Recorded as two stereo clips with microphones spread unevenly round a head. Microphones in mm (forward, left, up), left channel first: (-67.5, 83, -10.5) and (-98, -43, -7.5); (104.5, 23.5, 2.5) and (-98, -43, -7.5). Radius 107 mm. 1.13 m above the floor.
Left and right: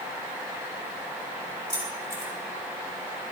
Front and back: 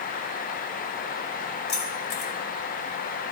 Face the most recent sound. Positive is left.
turn(degrees=-25)